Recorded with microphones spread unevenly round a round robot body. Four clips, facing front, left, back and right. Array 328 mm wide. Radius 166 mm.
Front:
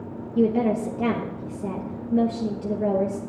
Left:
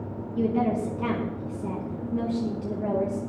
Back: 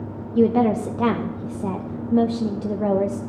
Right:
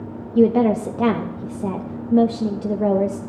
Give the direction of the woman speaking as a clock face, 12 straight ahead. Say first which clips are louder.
Right 9 dB, back 3 dB; 3 o'clock.